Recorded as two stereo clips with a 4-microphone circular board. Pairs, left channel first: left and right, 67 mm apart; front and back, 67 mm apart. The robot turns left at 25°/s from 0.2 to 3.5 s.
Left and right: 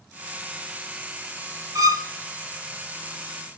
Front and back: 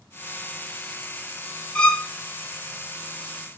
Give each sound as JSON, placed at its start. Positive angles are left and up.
{"t": 1.8, "sound": "a violin", "azimuth_deg": -70, "distance_m": 0.6}